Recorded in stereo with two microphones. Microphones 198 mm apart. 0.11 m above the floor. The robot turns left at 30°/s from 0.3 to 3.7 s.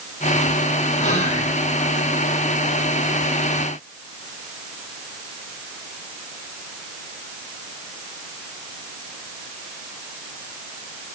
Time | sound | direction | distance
1.0 | whispering | 40° left (ahead or behind) | 2 m